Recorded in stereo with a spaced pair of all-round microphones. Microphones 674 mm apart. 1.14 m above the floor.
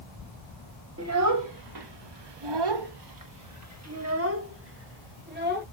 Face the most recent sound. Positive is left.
turn(degrees=-15)  # may be behind; listen again after turning